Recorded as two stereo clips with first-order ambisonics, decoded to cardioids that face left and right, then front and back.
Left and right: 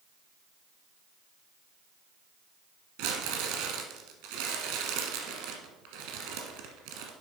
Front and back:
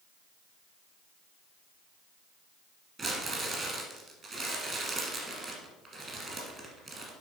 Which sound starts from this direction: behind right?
Crumpling, at 3.0 s.